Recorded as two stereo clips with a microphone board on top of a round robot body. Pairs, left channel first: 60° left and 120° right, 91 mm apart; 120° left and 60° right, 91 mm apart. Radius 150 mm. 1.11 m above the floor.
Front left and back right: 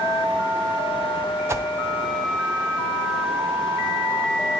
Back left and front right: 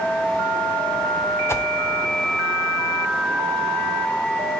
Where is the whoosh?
Straight behind, 0.6 m.